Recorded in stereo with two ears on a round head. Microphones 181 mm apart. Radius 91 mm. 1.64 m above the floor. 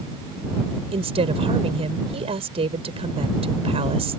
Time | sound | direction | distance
0.9 | a woman speaking | 30° right (ahead or behind) | ?